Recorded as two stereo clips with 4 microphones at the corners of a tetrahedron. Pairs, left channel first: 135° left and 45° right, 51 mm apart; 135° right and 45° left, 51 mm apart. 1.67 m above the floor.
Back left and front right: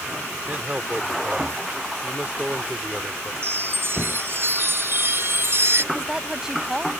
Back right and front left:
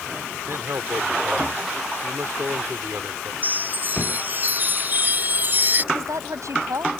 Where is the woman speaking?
35° left.